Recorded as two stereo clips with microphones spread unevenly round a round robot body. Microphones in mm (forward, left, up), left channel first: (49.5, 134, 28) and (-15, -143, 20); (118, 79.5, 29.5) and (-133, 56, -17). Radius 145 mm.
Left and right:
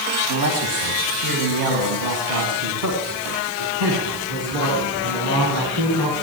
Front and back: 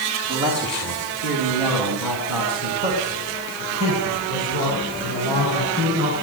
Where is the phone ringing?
No phone ringing in this recording.